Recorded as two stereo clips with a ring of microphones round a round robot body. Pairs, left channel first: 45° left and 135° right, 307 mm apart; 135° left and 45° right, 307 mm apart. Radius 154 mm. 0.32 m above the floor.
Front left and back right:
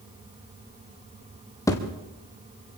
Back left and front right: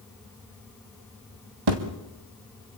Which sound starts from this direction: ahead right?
A thud, at 1.7 s.